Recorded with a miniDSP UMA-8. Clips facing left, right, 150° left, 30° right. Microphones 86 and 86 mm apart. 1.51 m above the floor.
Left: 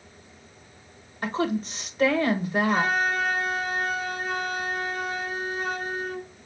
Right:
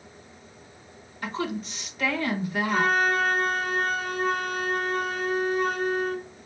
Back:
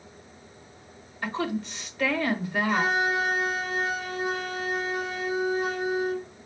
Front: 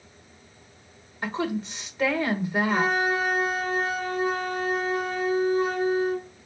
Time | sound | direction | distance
1.2 | a woman speaking | 40° left | 1.4 m
2.7 | a flute | 60° right | 2.5 m